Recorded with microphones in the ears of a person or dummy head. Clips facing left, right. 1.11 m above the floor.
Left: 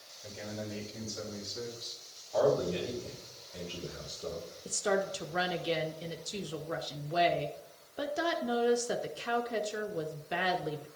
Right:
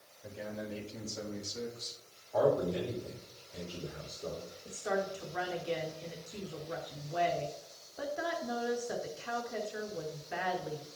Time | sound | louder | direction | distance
0.2 | a man speaking | even | 15° right (ahead or behind) | 3 m
2.3 | a man speaking | left 1 dB | 15° right (ahead or behind) | 3.5 m
4.7 | a woman speaking | left 3 dB | 50° left (ahead or behind) | 0.7 m